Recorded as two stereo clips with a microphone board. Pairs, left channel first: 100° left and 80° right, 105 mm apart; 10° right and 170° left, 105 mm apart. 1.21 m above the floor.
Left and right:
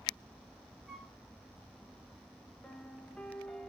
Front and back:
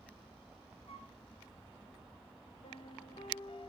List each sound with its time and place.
0.9 s a flute: 5° left, 1.2 m
2.6 s a piano: 20° left, 0.8 m